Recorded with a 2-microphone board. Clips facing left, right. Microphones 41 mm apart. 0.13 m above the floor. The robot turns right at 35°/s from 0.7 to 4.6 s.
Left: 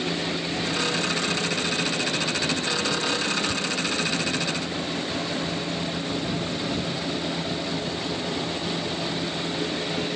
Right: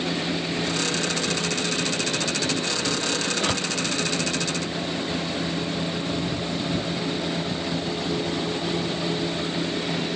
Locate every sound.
3.4 s a door slam: 55° right (ahead or behind); by 3.7 s 60° right (ahead or behind)